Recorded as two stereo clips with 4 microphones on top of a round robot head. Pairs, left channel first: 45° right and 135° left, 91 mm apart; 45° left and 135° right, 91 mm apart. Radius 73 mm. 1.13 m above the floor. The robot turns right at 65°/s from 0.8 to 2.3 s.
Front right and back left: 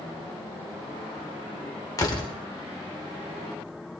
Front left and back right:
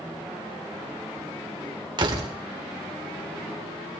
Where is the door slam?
100° right, 2 m; by 2.3 s 75° right, 2 m.